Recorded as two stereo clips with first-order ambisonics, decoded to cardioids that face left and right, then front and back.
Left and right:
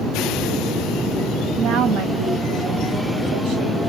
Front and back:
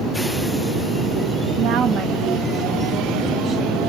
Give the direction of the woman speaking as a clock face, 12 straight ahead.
5 o'clock.